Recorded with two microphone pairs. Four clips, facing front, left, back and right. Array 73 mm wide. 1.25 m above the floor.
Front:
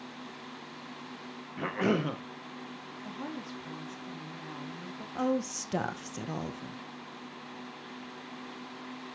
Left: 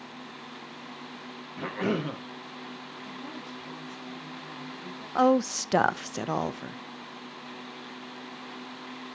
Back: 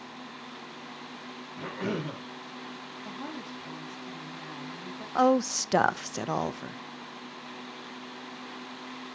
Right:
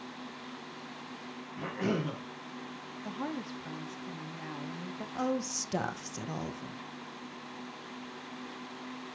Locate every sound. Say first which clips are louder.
1.6 s a cough: left 3 dB, front 4 dB; 25° left, 1.7 m
3.0 s a woman speaking: right 6 dB, even; 90° right, 2.5 m
5.2 s a woman speaking: left 11 dB, back 7 dB; 135° left, 0.6 m